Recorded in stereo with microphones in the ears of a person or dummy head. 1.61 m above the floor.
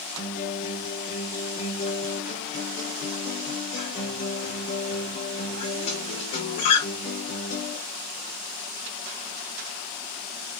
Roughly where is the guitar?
Left.